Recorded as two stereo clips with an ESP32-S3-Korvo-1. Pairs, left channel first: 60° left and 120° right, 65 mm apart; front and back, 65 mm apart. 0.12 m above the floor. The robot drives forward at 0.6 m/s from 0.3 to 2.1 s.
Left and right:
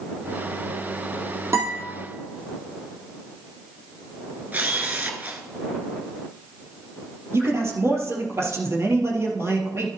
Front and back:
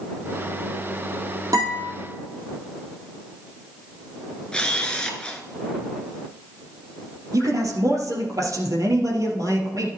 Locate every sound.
1.5 s a guitar: 160° right, 4 m
4.5 s a camera shutter: 70° right, 1.1 m
7.3 s a man speaking: 160° right, 3 m